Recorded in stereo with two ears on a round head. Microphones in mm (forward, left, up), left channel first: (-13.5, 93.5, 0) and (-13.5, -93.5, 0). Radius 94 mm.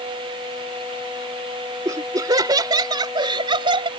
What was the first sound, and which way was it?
Laughter, 15° right (ahead or behind).